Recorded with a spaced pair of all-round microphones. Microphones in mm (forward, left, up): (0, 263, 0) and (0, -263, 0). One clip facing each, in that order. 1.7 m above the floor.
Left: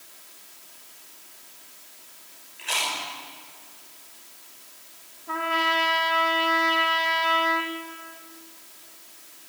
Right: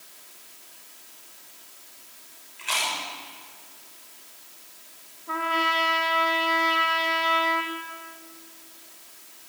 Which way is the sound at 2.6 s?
25° right (ahead or behind).